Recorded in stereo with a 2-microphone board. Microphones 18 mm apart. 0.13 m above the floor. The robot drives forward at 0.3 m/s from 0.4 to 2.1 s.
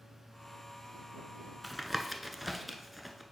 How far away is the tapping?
About 0.5 m.